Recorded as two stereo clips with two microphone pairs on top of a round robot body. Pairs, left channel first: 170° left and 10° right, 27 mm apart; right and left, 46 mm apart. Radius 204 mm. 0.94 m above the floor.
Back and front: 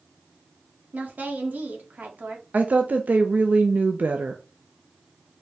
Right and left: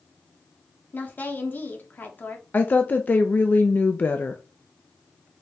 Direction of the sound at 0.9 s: 40° right.